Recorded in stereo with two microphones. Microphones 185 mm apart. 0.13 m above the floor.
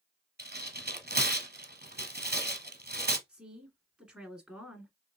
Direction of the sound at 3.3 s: 5° right (ahead or behind).